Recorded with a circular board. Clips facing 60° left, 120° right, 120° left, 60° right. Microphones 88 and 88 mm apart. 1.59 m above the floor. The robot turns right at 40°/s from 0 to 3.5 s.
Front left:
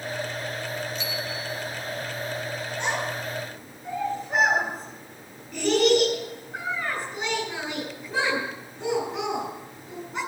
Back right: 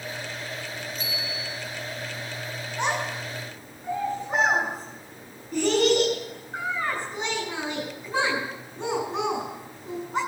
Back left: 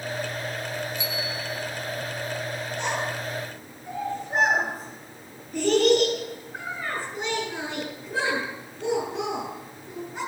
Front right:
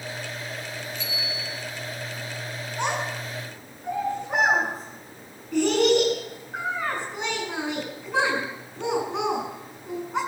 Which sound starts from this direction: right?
A child speaking, at 2.8 s.